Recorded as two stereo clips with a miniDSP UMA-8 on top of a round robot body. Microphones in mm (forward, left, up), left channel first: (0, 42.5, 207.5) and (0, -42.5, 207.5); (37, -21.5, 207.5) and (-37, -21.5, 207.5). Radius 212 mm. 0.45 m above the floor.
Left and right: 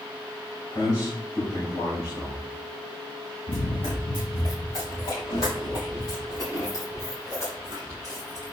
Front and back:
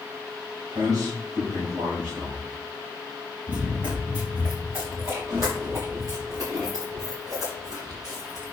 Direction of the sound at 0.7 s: 140° left.